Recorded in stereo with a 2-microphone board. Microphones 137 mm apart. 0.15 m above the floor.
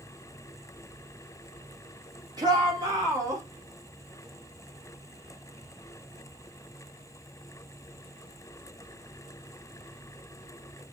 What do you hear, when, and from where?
2.4 s a shout: 30° right (ahead or behind), 5 m; by 3.4 s 25° right (ahead or behind), 5 m